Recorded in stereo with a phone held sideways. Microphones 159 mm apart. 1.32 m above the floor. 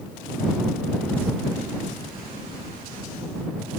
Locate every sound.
Only background noise.